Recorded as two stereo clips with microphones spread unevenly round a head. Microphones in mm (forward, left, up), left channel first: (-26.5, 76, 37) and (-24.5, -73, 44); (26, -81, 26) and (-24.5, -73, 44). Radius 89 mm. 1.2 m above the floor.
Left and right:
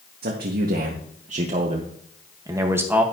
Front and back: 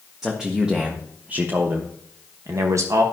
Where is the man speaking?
100° right, 1.6 m; by 3.0 s 170° right, 1.3 m.